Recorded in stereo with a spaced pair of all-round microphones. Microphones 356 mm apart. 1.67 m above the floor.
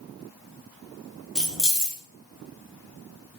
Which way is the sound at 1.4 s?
Centre (ahead or behind).